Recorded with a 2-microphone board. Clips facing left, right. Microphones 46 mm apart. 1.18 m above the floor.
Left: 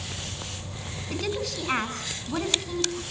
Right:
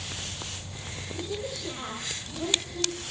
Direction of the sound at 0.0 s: 30° left (ahead or behind).